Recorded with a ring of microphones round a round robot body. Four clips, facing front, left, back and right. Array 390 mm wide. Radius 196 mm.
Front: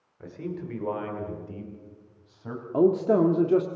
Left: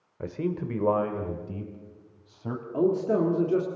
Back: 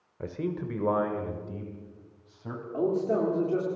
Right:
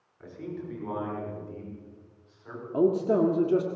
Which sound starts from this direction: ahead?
A man speaking, at 2.7 s.